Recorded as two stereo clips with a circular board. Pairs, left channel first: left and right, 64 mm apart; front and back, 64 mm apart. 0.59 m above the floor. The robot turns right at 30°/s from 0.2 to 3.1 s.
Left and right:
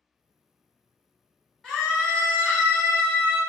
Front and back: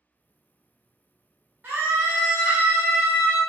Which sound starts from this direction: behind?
A scream, at 1.6 s.